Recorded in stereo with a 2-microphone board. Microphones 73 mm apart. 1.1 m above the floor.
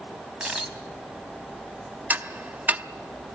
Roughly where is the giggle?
No giggle in this recording.